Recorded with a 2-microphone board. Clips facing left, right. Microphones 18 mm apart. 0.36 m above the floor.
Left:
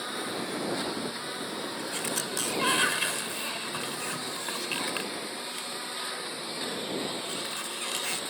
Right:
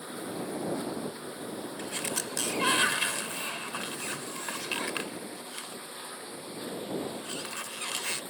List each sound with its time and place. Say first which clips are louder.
0.0 s a lawn mower: left 4 dB; 50° left (ahead or behind)
1.8 s a sliding door: even; 5° right (ahead or behind)